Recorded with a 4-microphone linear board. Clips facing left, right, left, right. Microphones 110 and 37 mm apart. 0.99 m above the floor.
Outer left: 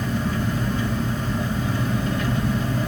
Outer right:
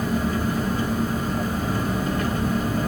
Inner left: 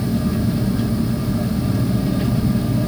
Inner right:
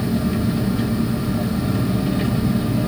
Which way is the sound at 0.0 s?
45° right (ahead or behind).